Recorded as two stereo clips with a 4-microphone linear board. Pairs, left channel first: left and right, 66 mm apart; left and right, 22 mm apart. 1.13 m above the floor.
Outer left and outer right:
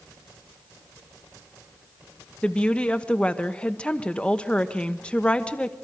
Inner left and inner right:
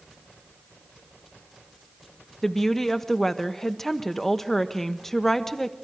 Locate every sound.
2.4 s a woman speaking: 15° left (ahead or behind), 1.2 m